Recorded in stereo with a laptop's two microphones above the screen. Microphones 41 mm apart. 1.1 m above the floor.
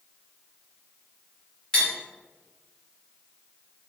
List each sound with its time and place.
1.7 s cutlery clinking: 20° left (ahead or behind), 1.8 m